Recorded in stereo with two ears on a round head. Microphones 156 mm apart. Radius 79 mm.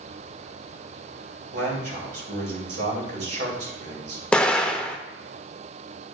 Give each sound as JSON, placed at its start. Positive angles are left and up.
{"t": 1.5, "sound": "a man speaking", "side_deg": -65, "distance_m": 3.0}
{"t": 4.3, "sound": "an explosion", "side_deg": 5, "distance_m": 0.5}